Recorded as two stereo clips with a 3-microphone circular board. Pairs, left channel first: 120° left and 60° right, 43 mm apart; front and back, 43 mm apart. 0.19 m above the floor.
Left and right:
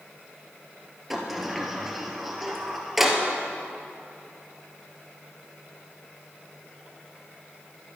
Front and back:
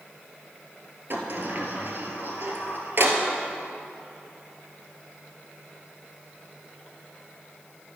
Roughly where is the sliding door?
Behind right.